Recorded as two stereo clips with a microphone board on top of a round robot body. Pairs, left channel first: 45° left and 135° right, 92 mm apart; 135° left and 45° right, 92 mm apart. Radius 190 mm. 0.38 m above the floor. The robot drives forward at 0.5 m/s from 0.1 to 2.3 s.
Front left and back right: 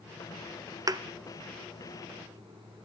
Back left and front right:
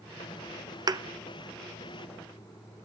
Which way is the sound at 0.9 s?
85° right.